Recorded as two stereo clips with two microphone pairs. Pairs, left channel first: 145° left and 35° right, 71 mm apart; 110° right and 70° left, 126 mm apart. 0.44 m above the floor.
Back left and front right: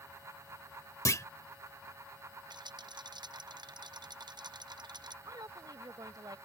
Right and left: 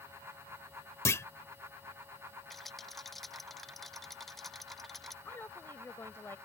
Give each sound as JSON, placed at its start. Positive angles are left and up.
{"t": 1.1, "sound": "a clunk", "azimuth_deg": 180}
{"t": 2.5, "sound": "a rattle", "azimuth_deg": -20}
{"t": 5.2, "sound": "a woman speaking", "azimuth_deg": -40}